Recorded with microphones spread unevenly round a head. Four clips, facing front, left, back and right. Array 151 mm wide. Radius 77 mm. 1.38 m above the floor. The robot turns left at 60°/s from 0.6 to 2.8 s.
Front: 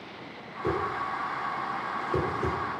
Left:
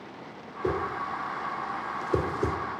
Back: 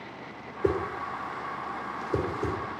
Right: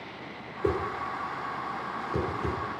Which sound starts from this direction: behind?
A whoosh, at 0.6 s.